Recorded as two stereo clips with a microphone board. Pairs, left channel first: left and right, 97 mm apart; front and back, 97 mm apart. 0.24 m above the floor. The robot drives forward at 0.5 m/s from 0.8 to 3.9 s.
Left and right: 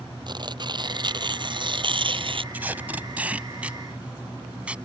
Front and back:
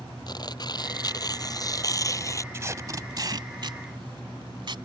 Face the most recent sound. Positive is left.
turn(degrees=-165)